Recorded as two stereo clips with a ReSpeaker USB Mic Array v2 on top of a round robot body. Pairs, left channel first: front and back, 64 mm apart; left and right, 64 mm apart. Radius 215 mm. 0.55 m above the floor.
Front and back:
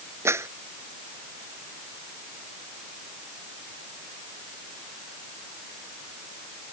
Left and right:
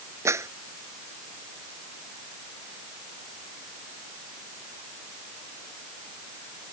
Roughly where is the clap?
Behind right.